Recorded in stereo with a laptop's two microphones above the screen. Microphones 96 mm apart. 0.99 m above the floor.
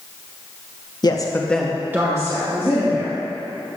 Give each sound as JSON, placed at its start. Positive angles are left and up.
{"t": 1.0, "sound": "a woman speaking", "side_deg": 45, "distance_m": 1.0}